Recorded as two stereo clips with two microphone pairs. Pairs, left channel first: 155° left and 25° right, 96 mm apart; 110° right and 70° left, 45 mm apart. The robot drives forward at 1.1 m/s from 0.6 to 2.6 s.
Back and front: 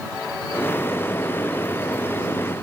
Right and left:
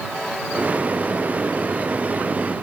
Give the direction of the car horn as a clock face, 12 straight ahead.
No car horn in this recording.